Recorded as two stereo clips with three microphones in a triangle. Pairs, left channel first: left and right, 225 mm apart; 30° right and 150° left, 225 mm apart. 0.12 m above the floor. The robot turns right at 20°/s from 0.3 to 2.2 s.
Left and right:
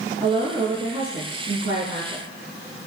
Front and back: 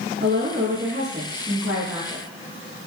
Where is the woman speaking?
170° right, 5.5 m; by 2.2 s 130° right, 5.5 m.